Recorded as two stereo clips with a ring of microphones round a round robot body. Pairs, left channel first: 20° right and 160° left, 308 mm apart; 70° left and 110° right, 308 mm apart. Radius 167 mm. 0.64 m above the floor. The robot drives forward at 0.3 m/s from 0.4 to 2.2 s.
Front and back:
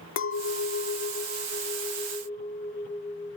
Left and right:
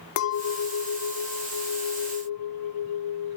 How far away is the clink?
About 1.1 m.